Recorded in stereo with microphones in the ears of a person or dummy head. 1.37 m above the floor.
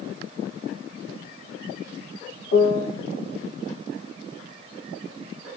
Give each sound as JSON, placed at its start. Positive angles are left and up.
{"t": 2.5, "sound": "a piano", "side_deg": 70, "distance_m": 1.6}